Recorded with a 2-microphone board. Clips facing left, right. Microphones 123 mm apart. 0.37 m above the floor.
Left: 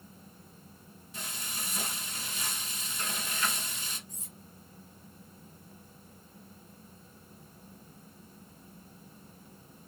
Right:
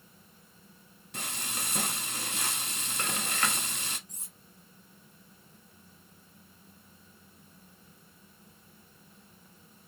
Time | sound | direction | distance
1.1 | frying | 70° right (ahead or behind) | 0.6 m
4.1 | cutlery clinking | 75° right (ahead or behind) | 2.5 m